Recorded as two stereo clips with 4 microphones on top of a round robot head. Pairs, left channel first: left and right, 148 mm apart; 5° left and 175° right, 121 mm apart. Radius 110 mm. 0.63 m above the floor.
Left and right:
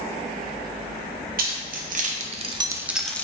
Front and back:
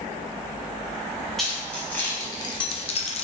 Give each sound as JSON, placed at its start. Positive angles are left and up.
{"t": 1.4, "sound": "keys jangling", "azimuth_deg": -85, "distance_m": 0.9}